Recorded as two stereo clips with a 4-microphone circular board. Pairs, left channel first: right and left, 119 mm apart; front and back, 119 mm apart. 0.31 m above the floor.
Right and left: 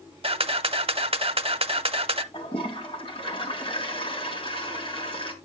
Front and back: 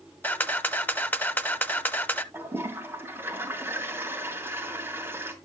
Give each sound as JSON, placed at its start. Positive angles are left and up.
{"t": 0.2, "sound": "a camera shutter", "azimuth_deg": 70, "distance_m": 0.7}
{"t": 2.3, "sound": "a toilet flushing", "azimuth_deg": -115, "distance_m": 2.5}